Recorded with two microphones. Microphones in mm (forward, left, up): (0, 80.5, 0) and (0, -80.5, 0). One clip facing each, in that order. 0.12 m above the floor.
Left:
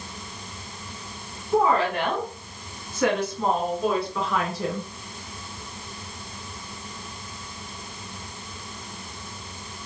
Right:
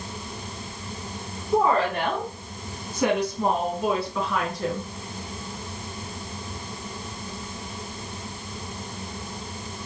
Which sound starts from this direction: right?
A woman speaking, at 1.5 s.